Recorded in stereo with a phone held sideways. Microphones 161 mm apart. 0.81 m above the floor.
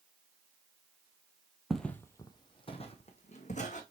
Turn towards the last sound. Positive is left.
turn(degrees=50)  # may be behind; listen again after turning